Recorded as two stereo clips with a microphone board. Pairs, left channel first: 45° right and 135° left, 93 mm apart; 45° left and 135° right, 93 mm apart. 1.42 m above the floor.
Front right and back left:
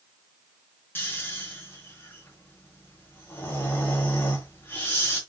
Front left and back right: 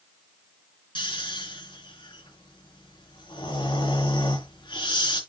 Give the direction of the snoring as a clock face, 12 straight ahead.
11 o'clock.